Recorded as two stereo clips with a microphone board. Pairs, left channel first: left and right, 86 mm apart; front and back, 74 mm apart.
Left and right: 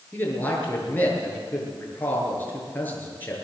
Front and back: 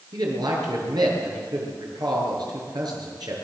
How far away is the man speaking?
About 7.5 m.